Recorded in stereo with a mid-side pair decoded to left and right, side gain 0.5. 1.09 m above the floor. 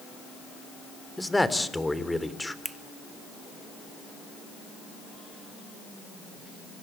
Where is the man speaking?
10° left, 3 m.